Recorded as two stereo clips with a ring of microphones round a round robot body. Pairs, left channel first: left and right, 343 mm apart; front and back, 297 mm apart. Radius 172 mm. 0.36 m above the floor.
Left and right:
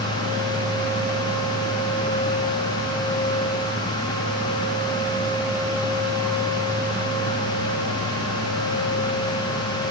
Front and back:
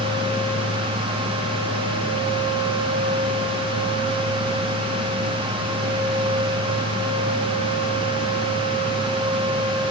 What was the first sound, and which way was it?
Only background noise.